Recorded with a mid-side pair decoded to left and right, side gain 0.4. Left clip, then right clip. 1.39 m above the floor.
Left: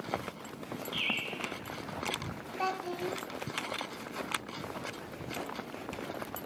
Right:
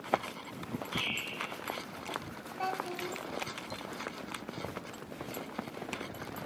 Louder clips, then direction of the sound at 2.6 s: Left 2 dB; 25° left.